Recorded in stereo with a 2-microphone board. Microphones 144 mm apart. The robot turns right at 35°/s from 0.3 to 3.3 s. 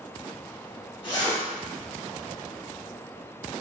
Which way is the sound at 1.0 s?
40° left (ahead or behind).